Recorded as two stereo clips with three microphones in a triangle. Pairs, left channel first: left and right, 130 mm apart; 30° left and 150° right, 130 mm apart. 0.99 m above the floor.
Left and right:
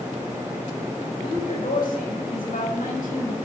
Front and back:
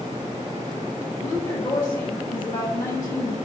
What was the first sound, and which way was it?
A woman speaking, 95° left.